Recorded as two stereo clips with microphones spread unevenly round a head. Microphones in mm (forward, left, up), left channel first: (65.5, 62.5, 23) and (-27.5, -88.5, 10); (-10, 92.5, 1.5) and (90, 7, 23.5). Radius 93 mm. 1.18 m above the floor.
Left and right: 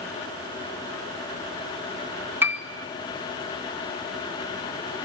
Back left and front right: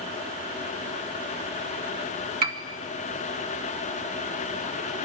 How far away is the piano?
About 2 m.